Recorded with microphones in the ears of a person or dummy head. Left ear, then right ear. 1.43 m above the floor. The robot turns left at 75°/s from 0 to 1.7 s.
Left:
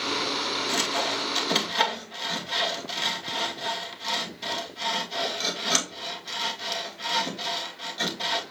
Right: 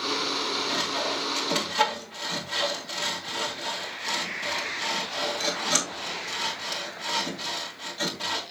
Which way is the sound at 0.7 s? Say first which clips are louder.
Left 1 dB; 85° left.